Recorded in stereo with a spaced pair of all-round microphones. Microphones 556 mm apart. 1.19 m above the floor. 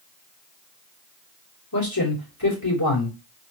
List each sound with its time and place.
1.7 s a man speaking: 40° left (ahead or behind), 3 m